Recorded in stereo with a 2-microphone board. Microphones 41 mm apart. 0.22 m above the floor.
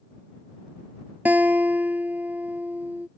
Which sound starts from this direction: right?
A guitar, at 1.2 s.